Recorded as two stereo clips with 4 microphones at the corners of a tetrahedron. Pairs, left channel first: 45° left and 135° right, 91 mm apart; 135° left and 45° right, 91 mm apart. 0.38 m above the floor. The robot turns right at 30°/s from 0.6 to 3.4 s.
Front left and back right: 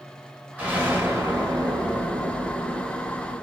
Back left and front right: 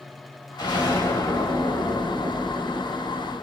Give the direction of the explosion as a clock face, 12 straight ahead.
7 o'clock.